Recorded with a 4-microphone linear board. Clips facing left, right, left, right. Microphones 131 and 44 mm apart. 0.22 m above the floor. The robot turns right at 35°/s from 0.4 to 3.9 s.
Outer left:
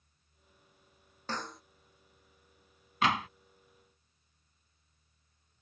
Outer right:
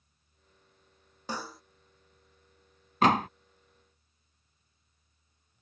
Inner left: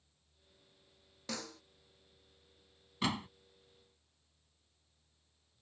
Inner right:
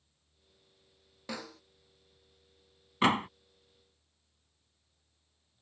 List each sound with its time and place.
1.3 s a snare drum: 10° right (ahead or behind); by 1.6 s centre (ahead or behind)
3.0 s a door slam: 40° right (ahead or behind); by 3.3 s 45° right (ahead or behind)